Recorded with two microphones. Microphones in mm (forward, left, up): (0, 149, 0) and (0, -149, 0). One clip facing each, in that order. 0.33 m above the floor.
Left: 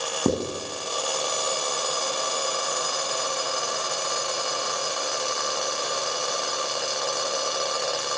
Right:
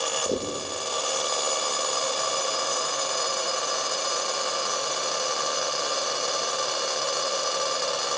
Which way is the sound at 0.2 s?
65° left (ahead or behind).